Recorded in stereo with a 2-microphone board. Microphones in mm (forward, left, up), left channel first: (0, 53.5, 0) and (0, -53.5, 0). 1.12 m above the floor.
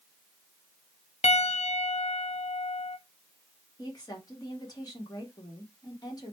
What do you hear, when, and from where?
1.2 s a piano: 80° left, 0.5 m
3.8 s a woman speaking: 40° left (ahead or behind), 1.6 m